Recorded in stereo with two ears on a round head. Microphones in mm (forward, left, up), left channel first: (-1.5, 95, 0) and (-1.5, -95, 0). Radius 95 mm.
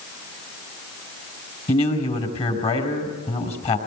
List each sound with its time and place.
1.7 s a man speaking: 30° left (ahead or behind), 4 m